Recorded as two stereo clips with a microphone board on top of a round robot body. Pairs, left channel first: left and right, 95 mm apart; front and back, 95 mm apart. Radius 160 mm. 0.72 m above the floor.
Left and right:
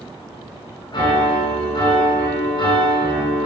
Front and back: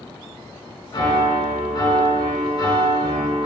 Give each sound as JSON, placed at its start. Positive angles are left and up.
{"t": 0.9, "sound": "a piano", "azimuth_deg": 45, "distance_m": 3.5}